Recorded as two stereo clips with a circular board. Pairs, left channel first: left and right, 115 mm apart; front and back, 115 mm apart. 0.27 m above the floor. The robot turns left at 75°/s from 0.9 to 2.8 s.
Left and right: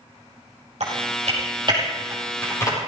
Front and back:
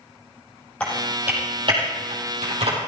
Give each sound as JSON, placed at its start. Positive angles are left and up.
{"t": 0.8, "sound": "typing on a keyboard", "azimuth_deg": -80, "distance_m": 5.5}